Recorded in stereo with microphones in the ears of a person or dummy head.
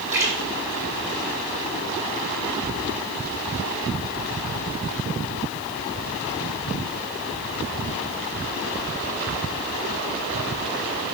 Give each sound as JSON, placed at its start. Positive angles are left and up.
{"t": 0.1, "sound": "a splash", "side_deg": -10, "distance_m": 5.5}